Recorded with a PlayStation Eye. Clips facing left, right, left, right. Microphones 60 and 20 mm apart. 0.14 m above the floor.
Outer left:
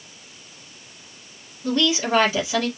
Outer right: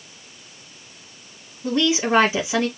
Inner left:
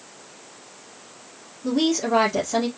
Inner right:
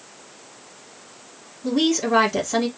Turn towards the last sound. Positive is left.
turn(degrees=-20)  # may be behind; listen again after turning